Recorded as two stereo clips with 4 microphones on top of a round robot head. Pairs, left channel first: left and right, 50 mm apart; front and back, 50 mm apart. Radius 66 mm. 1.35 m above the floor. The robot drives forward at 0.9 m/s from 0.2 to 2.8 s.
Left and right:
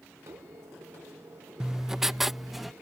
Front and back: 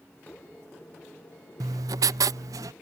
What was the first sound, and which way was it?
Writing, 170° right.